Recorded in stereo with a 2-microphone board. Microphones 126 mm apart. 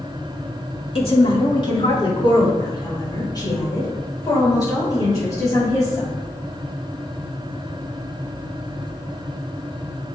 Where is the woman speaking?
50° left (ahead or behind), 2 m; by 6.1 s 25° left (ahead or behind), 7.5 m.